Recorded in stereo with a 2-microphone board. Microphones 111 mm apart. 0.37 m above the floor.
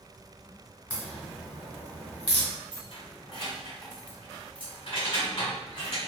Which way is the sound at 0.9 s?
15° right (ahead or behind).